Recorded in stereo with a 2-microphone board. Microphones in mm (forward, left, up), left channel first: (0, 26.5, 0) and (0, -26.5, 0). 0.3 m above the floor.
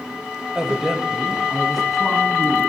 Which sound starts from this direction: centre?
A man speaking, at 0.6 s.